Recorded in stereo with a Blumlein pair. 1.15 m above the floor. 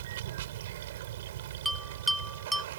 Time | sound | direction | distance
0.0 | running water | 55° right | ?
1.6 | a bell | 5° right | ?